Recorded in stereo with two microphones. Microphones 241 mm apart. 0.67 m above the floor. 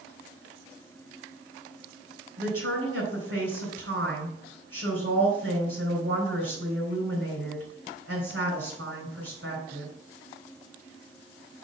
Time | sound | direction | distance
2.4 | a woman speaking | 65° right (ahead or behind) | 3.5 m